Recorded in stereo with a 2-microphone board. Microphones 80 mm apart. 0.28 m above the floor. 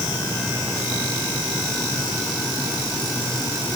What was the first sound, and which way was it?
Only background noise.